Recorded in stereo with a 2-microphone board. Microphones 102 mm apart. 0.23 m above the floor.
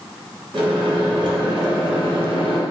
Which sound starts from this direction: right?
A microwave, at 0.5 s.